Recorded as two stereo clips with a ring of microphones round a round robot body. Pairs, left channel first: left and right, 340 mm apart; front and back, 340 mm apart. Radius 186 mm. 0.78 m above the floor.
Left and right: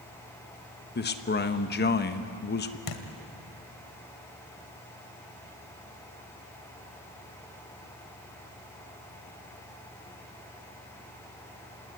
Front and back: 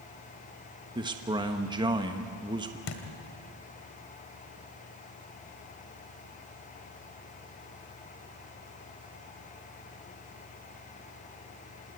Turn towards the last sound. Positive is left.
turn(degrees=50)